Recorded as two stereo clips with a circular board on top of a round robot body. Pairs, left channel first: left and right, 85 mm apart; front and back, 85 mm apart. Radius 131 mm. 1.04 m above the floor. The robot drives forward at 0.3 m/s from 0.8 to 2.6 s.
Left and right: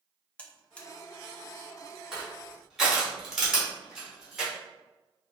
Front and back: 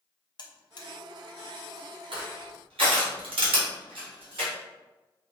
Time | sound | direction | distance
0.4 | a buzzer | 15° left | 0.7 m
2.1 | crushing | 175° right | 1.3 m